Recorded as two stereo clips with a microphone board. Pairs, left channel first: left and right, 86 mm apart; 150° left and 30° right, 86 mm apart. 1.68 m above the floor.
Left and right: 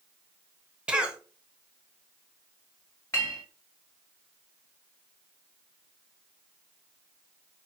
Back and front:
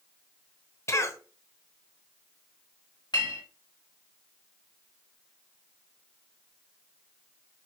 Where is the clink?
140° left, 1.7 m.